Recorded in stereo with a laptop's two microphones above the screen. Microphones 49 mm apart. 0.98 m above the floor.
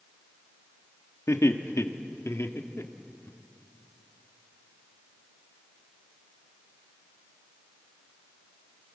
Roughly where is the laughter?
Left.